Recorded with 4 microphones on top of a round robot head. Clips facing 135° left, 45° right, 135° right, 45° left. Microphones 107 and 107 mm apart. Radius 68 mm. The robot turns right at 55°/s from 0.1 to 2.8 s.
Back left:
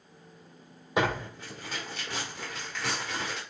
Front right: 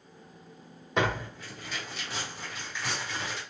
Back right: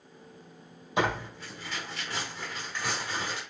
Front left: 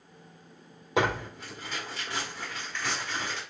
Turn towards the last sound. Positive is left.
turn(degrees=150)